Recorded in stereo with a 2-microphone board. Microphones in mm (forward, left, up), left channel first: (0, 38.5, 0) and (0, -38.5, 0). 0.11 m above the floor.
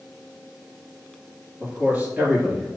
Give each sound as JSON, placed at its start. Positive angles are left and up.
{"t": 1.6, "sound": "a man speaking", "side_deg": -20, "distance_m": 2.5}